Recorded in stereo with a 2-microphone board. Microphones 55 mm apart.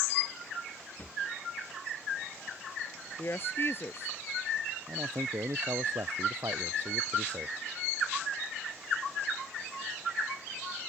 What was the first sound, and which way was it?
A drawer, 40° left (ahead or behind).